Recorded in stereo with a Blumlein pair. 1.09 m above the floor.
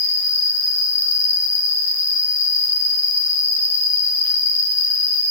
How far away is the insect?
About 2 m.